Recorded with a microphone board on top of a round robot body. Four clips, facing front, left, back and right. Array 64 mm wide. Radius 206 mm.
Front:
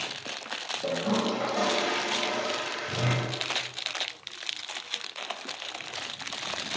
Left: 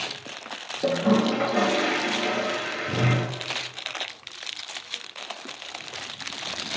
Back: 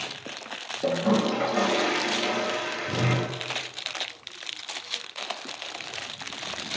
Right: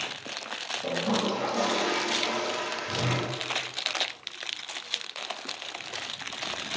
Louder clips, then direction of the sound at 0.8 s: Left 7 dB, back 4 dB; 115° left.